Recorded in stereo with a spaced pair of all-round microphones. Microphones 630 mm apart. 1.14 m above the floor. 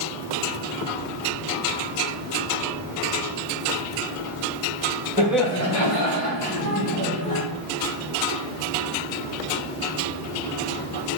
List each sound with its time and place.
5.2 s laughter: 15° right (ahead or behind), 1.0 m; by 7.4 s 75° left (ahead or behind), 2.5 m